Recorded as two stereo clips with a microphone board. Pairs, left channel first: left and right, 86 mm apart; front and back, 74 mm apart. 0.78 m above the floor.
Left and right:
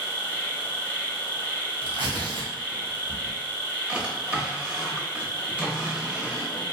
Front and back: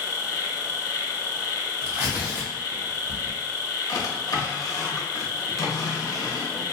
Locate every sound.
0.0 s an insect: 30° left, 0.8 m
1.8 s tearing paper: 105° right, 1.5 m
3.9 s a drawer: 20° right, 0.7 m